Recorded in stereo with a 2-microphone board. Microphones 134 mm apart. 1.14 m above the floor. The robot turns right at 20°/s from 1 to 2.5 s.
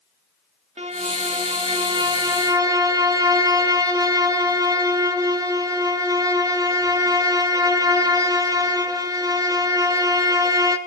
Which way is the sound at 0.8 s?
60° right.